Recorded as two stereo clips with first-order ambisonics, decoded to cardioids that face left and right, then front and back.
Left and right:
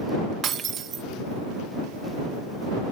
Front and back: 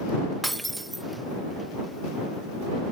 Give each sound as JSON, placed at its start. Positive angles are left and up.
{"t": 0.4, "sound": "breaking glass", "azimuth_deg": -100}